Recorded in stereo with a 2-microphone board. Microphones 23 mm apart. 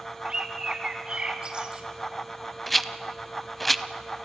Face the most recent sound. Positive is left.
turn(degrees=5)  # may be behind; listen again after turning